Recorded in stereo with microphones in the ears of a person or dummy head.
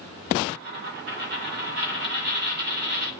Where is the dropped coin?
50° right (ahead or behind), 1.6 m.